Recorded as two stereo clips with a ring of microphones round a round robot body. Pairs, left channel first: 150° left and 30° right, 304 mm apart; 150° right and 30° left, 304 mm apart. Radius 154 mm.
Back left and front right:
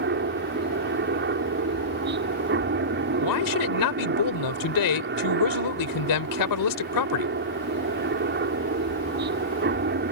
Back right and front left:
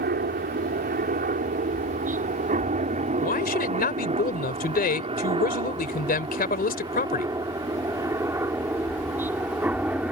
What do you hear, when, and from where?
0.0 s a helicopter: 5° right; by 10.1 s 55° right
3.2 s a man speaking: 150° left